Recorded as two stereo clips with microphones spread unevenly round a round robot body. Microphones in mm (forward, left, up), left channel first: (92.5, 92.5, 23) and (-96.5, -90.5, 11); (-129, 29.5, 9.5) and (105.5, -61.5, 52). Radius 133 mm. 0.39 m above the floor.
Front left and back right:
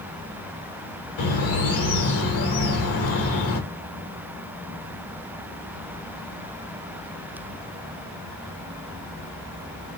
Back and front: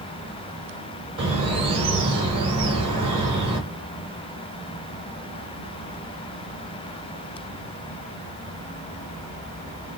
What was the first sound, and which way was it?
A bird, 50° left.